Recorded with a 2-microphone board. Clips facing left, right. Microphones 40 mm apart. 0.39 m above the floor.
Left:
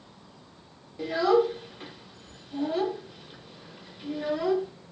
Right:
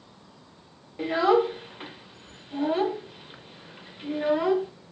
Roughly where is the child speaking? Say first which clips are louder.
Right 1 dB; right.